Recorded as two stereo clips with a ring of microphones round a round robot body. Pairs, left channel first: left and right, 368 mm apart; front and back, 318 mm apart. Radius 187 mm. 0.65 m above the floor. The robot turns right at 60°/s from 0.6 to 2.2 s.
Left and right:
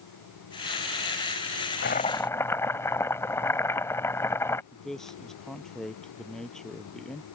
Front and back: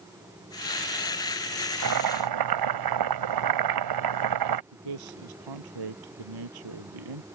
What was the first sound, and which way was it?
Boiling, 150° left.